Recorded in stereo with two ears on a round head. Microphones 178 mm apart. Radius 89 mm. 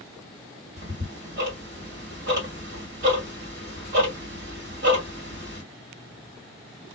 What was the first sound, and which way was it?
Ticking, 55° right (ahead or behind).